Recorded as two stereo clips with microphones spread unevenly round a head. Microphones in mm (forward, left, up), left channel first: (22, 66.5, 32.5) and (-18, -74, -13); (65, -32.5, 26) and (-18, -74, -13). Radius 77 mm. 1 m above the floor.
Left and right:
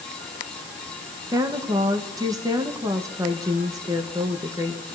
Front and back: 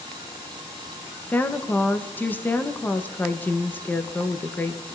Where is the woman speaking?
55° right, 1.1 m.